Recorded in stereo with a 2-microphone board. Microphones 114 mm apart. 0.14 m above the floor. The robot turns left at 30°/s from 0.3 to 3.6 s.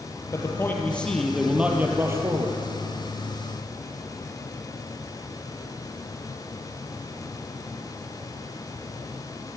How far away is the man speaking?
About 4 m.